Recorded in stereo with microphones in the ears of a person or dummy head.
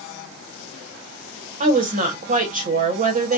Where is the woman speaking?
40° right (ahead or behind), 0.9 m.